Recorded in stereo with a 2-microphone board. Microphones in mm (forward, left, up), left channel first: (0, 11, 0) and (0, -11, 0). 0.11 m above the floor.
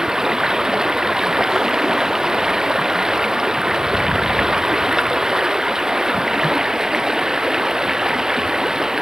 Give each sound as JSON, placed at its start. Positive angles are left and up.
{"t": 0.0, "sound": "running water", "side_deg": -30}